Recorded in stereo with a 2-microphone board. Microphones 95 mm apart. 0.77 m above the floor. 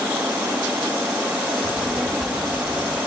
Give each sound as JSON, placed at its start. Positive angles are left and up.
{"t": 1.6, "sound": "a child speaking", "side_deg": 0, "distance_m": 2.5}